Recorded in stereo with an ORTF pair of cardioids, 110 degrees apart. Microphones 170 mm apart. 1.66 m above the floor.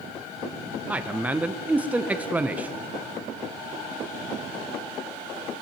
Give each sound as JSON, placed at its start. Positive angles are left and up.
{"t": 0.9, "sound": "a man speaking", "azimuth_deg": -10, "distance_m": 0.7}